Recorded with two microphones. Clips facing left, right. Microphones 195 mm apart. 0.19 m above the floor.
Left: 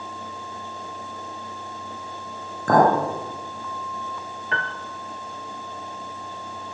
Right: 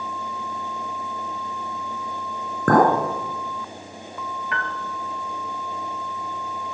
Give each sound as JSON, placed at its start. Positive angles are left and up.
{"t": 2.7, "sound": "a clink", "side_deg": -65, "distance_m": 1.9}
{"t": 4.5, "sound": "a piano", "side_deg": 35, "distance_m": 0.7}